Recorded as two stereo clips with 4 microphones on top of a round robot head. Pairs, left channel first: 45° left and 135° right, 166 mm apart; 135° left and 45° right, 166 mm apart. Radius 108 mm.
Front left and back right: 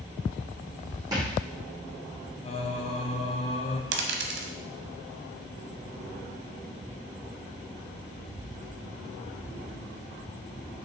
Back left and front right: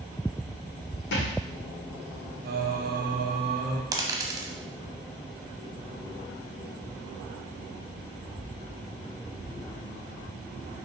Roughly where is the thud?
Behind left.